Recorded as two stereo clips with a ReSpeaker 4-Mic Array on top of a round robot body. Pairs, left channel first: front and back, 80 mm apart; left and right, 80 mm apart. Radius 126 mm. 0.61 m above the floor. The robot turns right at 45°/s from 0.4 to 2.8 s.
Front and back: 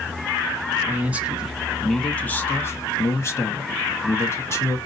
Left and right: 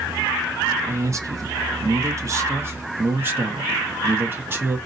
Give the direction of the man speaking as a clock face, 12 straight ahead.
4 o'clock.